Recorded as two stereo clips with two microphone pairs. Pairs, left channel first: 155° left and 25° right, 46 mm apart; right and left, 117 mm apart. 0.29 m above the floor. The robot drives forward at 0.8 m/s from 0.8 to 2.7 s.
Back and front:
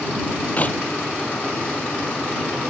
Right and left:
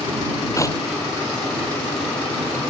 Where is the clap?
155° right.